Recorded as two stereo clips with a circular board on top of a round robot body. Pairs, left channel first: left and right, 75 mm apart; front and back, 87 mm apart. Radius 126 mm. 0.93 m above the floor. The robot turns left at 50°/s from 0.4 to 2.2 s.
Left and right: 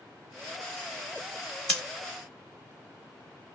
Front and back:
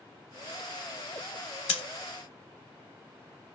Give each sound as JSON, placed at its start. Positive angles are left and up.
{"t": 1.7, "sound": "scissors", "azimuth_deg": 20, "distance_m": 0.6}